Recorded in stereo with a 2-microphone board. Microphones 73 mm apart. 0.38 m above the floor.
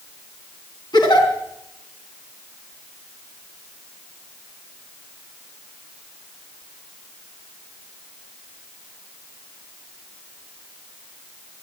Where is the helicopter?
I don't hear a helicopter.